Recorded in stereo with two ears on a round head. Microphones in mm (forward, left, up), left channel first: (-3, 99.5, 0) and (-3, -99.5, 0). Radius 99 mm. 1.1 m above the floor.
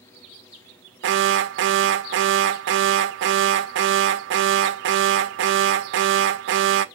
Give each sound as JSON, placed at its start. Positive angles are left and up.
{"t": 1.0, "sound": "an alarm", "side_deg": -55, "distance_m": 0.5}